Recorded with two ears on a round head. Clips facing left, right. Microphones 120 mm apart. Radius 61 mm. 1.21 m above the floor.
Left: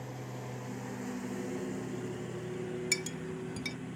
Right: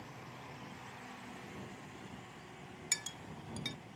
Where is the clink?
10° left (ahead or behind).